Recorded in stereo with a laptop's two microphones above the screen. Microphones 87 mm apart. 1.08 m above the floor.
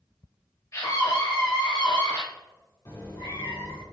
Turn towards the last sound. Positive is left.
turn(degrees=50)  # may be behind; listen again after turning